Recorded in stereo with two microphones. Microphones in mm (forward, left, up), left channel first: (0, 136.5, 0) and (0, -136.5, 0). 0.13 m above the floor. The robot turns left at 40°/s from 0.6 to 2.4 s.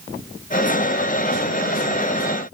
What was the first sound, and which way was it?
Only background noise.